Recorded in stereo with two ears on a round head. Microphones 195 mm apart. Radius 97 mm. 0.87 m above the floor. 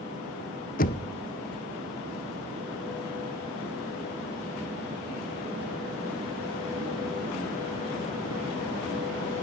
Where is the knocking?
40° left (ahead or behind), 0.5 m.